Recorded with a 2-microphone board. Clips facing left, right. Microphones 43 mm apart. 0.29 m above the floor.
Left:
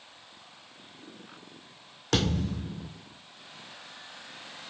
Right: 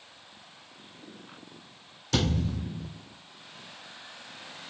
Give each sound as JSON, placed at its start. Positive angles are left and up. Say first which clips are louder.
{"t": 2.1, "sound": "a thud", "louder": "even", "side_deg": 70, "distance_m": 1.8}